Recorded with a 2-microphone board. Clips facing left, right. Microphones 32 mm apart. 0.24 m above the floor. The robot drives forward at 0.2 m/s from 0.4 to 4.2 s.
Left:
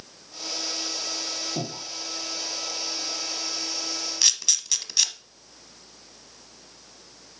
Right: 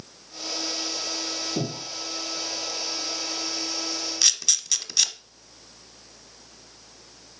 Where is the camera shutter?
10° left (ahead or behind), 0.7 m.